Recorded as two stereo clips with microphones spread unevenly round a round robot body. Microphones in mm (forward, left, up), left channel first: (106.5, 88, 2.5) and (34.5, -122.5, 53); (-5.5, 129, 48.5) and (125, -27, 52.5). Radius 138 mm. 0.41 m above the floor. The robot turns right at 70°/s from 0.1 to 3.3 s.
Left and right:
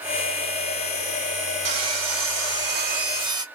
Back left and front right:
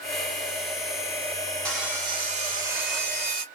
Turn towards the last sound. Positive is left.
turn(degrees=-30)